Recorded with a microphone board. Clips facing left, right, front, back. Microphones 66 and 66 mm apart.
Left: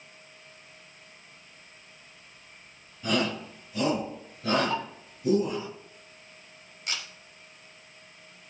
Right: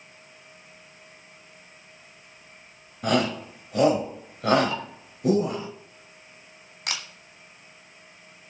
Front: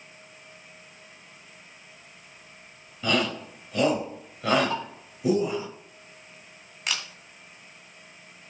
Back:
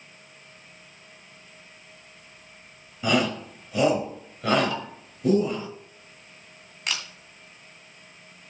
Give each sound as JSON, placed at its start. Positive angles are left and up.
{"t": 3.0, "sound": "a shout", "azimuth_deg": -105, "distance_m": 3.5}
{"t": 4.7, "sound": "dishes clattering", "azimuth_deg": 45, "distance_m": 1.8}
{"t": 6.9, "sound": "a camera shutter", "azimuth_deg": -90, "distance_m": 2.0}